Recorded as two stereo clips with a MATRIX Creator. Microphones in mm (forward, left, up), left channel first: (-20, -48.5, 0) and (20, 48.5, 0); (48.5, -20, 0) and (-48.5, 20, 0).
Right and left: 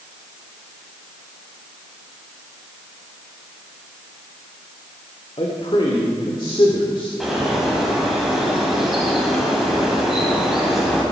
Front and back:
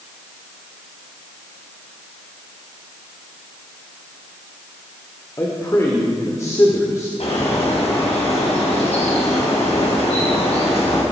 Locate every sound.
5.4 s a man speaking: 80° right, 1.7 m
7.2 s a bird: 20° right, 4.5 m